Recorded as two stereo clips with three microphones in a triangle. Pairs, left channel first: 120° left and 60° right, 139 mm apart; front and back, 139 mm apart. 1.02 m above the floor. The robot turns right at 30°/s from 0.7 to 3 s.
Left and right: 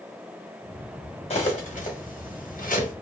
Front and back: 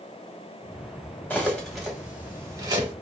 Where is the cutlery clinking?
75° left, 1.2 m; by 2.9 s 125° left, 1.2 m.